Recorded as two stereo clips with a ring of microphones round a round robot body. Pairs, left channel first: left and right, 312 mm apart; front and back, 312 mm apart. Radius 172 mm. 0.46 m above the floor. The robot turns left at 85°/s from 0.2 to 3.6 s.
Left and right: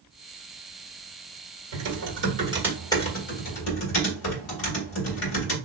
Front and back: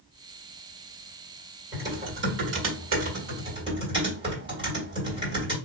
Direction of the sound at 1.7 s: 90° right.